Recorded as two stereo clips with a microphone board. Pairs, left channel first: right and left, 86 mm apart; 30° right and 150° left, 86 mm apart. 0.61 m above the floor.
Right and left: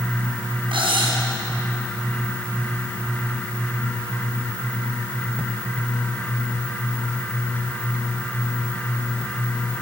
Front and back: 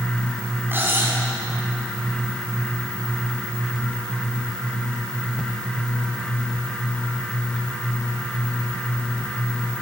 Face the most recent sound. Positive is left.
turn(degrees=85)